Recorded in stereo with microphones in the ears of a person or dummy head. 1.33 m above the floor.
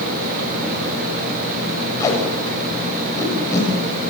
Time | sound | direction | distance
2.0 | tape being pulled | 20° left (ahead or behind) | 7.5 m